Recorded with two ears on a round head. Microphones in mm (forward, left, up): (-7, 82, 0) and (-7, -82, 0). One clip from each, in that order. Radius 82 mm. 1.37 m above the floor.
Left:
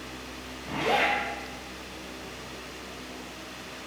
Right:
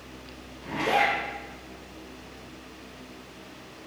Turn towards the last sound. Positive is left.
turn(degrees=-75)  # may be behind; listen again after turning